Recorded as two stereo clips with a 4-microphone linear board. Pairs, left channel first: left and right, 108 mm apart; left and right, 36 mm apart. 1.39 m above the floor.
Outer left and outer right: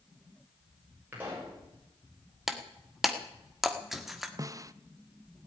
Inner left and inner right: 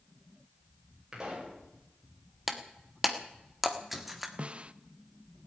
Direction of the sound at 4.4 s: 30° right (ahead or behind).